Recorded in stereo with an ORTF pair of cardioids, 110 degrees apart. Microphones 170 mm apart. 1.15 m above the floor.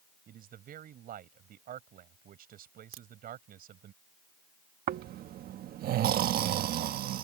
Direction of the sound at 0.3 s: 60° right.